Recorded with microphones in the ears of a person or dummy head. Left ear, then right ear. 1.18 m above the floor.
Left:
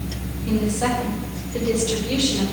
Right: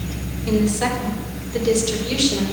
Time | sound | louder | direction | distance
0.5 | a woman speaking | right 2 dB | 65° right (ahead or behind) | 4.5 m